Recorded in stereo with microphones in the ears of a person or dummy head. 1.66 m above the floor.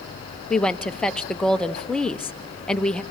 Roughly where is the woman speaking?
Centre.